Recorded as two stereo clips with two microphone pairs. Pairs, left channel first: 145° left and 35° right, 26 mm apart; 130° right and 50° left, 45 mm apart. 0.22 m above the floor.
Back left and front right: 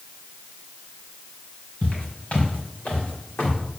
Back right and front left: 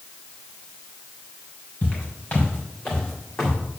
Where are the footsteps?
170° left, 4 m; by 3.6 s 145° left, 3 m.